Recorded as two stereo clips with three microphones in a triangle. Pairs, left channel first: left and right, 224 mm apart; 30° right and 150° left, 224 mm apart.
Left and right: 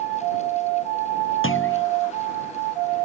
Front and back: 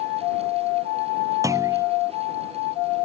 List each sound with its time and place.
1.4 s a clunk: 75° left